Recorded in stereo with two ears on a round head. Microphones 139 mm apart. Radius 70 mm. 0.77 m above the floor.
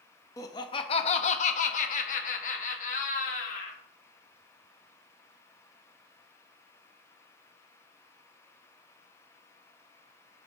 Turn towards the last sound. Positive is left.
turn(degrees=50)  # may be behind; listen again after turning